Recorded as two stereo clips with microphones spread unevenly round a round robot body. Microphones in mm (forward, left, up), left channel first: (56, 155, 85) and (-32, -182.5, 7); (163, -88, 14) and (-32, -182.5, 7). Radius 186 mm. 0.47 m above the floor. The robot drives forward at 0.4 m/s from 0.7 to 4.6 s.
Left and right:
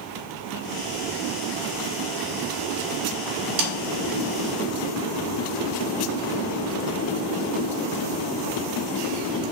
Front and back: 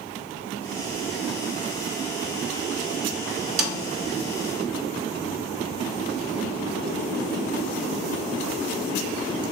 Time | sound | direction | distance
3.6 | a snare drum | 150° right | 0.9 m